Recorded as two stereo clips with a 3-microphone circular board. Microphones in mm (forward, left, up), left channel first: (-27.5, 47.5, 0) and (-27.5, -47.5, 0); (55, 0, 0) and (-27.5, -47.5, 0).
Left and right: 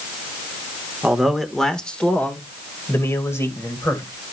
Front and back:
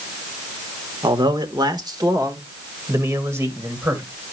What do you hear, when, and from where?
1.0 s a man speaking: 170° right, 1.5 m; by 4.2 s 145° left, 3 m